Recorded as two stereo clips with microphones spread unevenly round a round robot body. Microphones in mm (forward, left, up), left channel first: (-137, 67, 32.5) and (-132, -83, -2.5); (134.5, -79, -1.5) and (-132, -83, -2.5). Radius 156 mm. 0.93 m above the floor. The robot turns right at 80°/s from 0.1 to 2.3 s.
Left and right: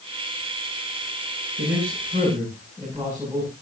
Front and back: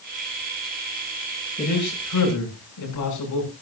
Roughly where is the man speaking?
Ahead right.